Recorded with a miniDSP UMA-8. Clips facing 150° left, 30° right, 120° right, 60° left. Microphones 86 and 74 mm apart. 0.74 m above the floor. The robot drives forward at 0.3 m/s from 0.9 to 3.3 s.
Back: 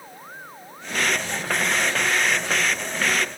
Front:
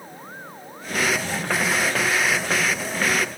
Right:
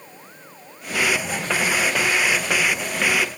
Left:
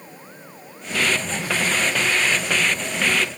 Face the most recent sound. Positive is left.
No sound to turn to.